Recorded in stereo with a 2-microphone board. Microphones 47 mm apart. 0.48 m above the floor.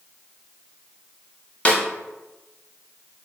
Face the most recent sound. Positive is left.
turn(degrees=30)  # may be behind; listen again after turning